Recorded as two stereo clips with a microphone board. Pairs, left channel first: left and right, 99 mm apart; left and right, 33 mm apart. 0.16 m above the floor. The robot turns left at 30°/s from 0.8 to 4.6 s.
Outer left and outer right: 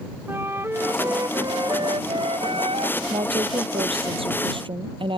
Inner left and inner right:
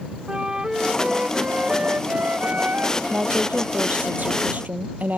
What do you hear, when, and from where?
0.3 s a flute: 25° right; by 3.0 s 90° right
3.1 s a woman speaking: 70° right; by 5.2 s 115° right